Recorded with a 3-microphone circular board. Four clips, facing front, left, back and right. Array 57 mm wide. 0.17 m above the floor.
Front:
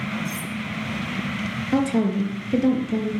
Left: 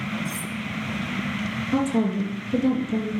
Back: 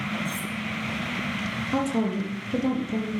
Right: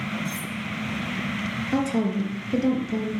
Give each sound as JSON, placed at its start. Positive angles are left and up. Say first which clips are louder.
{"t": 0.2, "sound": "cutlery clinking", "louder": "even, front 1 dB", "azimuth_deg": 40, "distance_m": 3.0}
{"t": 1.7, "sound": "a woman speaking", "louder": "left 1 dB, front 5 dB", "azimuth_deg": -20, "distance_m": 3.5}